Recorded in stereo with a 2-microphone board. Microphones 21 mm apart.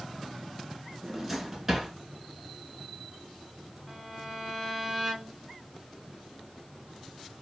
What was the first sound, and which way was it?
A drawer, 15° right (ahead or behind).